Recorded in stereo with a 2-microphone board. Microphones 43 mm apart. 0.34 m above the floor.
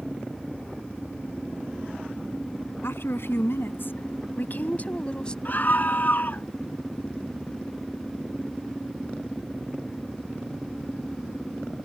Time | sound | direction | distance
2.8 | a woman speaking | 70° left (ahead or behind) | ?
5.5 | a scream | 45° left (ahead or behind) | ?